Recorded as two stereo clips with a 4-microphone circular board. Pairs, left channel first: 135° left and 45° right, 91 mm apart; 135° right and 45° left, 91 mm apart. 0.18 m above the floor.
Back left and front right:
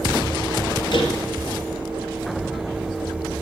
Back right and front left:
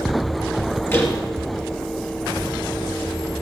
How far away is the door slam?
About 3 m.